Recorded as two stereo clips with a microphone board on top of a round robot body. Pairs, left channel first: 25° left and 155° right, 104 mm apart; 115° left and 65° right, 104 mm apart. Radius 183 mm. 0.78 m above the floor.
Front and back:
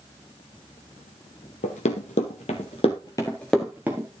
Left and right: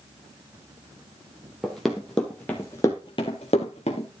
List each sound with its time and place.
1.6 s running footsteps: 20° left, 1.2 m; by 4.1 s 140° left, 0.9 m